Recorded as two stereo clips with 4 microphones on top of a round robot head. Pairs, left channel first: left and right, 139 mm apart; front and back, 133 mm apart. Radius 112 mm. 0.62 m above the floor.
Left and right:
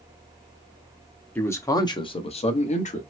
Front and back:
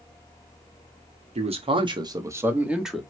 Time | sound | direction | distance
1.4 | a man speaking | 165° left | 1.0 m